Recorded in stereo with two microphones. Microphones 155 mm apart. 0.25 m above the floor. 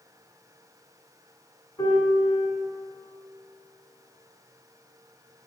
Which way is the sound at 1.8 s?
20° left (ahead or behind).